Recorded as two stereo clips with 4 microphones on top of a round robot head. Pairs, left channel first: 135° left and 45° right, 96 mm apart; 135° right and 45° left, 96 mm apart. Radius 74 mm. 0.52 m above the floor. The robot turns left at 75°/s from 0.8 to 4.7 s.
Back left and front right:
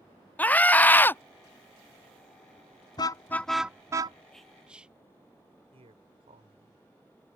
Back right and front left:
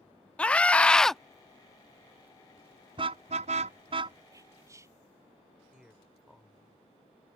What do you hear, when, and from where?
0.4 s a scream: 170° left; by 1.2 s 140° left
3.0 s a car horn: 85° left; by 4.2 s 5° right
4.3 s whispering: 55° left; by 5.0 s 25° left
5.7 s a man speaking: 35° right